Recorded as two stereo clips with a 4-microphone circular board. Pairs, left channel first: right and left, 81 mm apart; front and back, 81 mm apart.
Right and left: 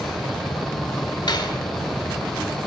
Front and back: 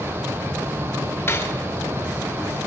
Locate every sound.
1.3 s cutlery clinking: 60° right, 3 m